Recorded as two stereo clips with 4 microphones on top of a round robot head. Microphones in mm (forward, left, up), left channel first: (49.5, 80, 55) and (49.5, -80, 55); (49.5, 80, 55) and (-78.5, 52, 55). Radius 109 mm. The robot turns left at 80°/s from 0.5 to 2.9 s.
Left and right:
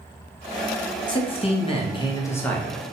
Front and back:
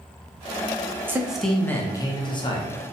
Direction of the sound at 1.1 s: 130° left.